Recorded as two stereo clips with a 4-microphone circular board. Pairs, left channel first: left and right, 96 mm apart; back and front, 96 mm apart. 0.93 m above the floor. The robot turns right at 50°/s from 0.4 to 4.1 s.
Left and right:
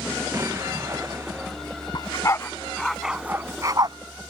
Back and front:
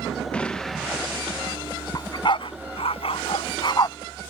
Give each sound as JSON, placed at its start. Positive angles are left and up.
{"t": 0.3, "sound": "an explosion", "azimuth_deg": -110}
{"t": 1.9, "sound": "a dog barking", "azimuth_deg": 130}